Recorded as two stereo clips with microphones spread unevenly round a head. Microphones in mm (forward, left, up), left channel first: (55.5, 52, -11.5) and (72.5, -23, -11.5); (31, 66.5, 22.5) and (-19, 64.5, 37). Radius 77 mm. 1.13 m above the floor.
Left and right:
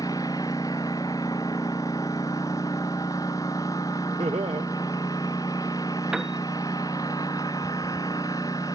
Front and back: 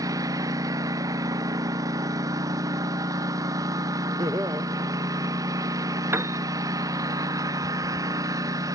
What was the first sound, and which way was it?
A lawn mower, 175° left.